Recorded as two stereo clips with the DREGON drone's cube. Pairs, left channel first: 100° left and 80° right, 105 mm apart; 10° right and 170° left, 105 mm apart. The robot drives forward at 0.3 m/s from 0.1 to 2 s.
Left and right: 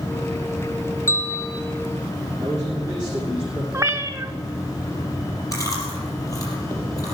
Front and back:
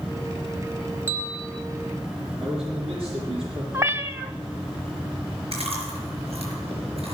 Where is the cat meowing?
130° right, 0.8 m.